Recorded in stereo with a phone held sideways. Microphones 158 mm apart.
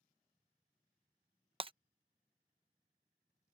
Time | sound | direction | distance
1.6 | breaking glass | 35° right (ahead or behind) | ?